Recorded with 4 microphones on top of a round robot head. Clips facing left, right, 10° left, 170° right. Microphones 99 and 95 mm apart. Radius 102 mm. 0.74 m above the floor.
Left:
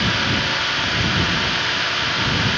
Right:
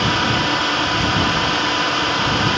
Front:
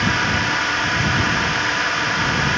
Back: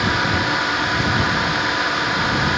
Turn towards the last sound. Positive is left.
turn(degrees=-95)